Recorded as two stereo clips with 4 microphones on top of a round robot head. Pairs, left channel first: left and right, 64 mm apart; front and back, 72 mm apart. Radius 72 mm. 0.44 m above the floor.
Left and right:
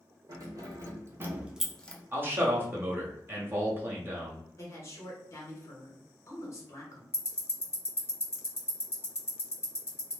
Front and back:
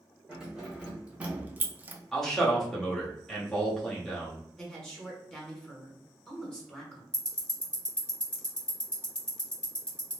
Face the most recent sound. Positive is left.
turn(degrees=75)